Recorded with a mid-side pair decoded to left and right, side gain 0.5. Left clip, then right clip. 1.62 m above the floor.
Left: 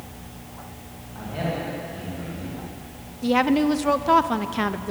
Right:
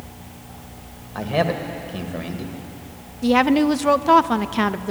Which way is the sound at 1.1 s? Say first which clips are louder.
Right 8 dB; 70° right.